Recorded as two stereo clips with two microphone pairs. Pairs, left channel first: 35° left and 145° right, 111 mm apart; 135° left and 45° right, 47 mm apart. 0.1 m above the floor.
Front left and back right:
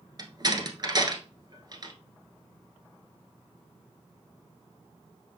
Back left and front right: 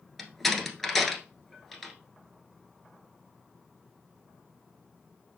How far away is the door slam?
About 1.3 m.